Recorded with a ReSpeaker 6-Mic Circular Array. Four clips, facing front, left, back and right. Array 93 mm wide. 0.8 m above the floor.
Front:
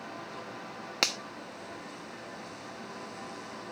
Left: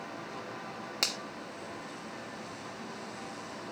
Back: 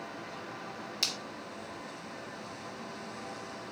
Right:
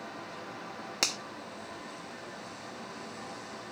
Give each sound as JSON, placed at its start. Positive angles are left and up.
{"t": 1.0, "sound": "a finger snap", "azimuth_deg": -10, "distance_m": 1.2}